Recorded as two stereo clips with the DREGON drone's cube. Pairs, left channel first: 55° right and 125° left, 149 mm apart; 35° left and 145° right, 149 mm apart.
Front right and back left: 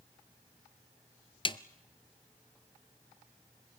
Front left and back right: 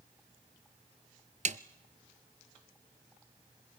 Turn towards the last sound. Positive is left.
turn(degrees=-110)